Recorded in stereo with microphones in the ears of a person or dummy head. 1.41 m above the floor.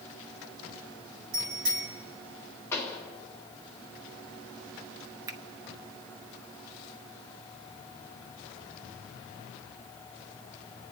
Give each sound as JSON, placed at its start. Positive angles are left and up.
{"t": 1.3, "sound": "a bicycle bell", "side_deg": -60, "distance_m": 5.5}
{"t": 2.7, "sound": "a pop", "side_deg": 10, "distance_m": 2.5}
{"t": 5.3, "sound": "a finger snap", "side_deg": -20, "distance_m": 0.7}